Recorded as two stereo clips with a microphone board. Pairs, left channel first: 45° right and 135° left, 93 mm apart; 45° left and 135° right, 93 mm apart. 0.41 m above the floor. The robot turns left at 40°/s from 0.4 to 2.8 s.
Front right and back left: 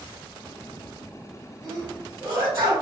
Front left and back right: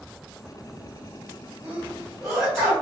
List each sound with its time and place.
1.6 s a sneeze: 160° left, 1.6 m; by 2.7 s 115° left, 1.6 m